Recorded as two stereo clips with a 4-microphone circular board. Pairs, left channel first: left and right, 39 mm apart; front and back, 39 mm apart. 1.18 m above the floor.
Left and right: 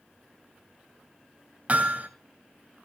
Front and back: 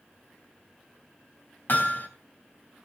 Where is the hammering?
40° right, 3 m.